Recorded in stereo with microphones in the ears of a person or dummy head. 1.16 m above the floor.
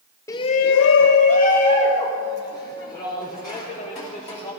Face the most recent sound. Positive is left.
turn(degrees=20)  # may be behind; listen again after turning